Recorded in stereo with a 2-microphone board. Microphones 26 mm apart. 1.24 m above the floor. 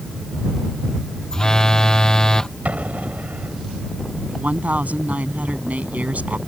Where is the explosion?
75° right (ahead or behind).